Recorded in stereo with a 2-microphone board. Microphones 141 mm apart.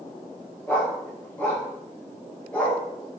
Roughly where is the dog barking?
Centre.